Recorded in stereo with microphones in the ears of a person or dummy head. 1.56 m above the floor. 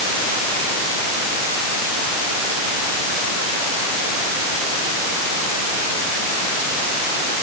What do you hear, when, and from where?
Only background noise.